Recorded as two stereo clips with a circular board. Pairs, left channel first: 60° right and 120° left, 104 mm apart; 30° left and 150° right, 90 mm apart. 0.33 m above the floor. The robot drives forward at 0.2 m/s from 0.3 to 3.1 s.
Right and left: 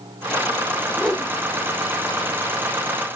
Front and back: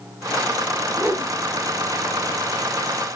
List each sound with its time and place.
1.0 s a whoosh: 140° right, 0.9 m; by 1.3 s 145° right, 0.9 m